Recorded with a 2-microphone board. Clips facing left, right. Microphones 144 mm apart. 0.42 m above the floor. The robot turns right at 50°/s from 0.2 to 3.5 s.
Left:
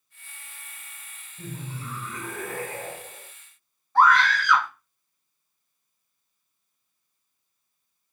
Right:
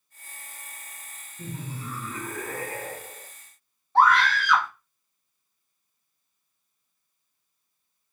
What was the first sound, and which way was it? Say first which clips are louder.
Laughter: right 1 dB; 80° left.